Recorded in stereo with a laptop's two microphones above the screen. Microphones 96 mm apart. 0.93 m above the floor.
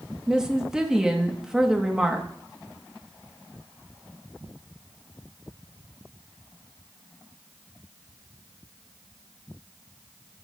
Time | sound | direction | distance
0.3 | a woman speaking | 5° right (ahead or behind) | 1.6 m